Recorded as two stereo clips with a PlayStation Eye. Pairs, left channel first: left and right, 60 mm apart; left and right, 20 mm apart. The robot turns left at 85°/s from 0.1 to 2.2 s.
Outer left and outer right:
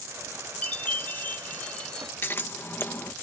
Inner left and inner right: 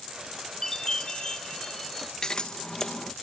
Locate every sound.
0.6 s a chime: 135° left; by 2.1 s 5° left
2.2 s scissors: 40° left (ahead or behind)